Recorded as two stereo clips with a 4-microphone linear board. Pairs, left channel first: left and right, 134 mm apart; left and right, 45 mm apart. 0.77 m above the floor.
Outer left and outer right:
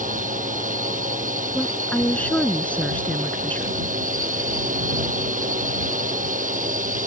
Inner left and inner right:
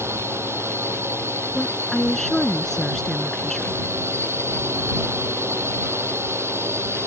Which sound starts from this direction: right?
A drone, at 0.0 s.